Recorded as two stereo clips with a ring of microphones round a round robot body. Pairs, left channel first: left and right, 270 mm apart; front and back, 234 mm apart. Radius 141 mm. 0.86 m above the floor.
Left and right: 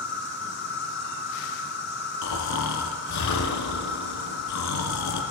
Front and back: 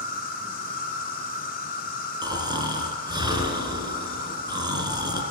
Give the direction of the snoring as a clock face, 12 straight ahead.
8 o'clock.